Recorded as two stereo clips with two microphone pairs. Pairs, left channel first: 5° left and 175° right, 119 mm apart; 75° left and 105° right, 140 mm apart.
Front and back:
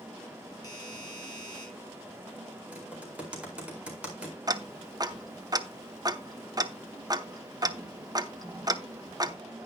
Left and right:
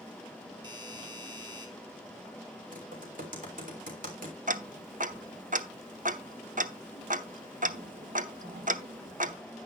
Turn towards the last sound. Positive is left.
turn(degrees=-120)